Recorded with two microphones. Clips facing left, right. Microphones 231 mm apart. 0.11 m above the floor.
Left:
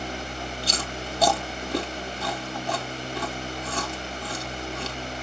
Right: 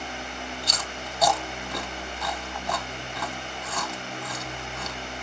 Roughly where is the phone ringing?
No phone ringing in this recording.